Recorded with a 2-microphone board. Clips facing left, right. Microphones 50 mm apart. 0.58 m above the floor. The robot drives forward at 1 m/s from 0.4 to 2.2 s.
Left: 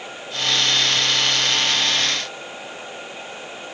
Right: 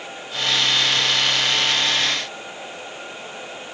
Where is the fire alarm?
No fire alarm in this recording.